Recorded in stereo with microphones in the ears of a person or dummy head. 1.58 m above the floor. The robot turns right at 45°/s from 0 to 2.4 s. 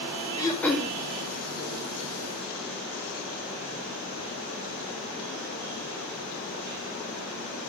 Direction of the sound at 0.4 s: 20° left (ahead or behind).